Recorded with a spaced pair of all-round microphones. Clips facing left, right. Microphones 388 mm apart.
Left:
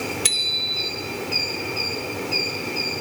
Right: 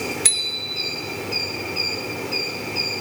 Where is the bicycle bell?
45° left (ahead or behind), 2 m.